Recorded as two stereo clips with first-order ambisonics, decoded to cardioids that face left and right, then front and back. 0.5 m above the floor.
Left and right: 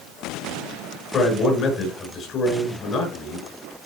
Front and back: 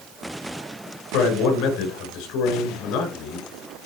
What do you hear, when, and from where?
1.1 s a man speaking: 30° left, 5.5 m